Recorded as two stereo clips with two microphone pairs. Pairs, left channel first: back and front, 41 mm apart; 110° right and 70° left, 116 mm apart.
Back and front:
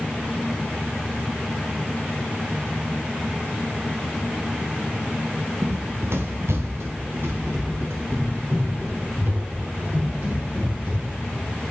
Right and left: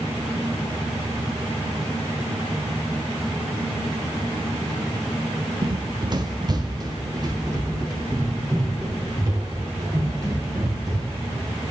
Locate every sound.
5.6 s running footsteps: 25° left, 0.7 m; by 11.3 s 15° left, 8 m